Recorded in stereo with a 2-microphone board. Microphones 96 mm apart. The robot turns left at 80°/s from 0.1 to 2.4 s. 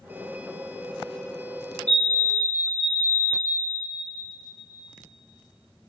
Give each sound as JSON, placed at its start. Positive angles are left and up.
{"t": 1.9, "sound": "a fire alarm", "azimuth_deg": 15, "distance_m": 4.5}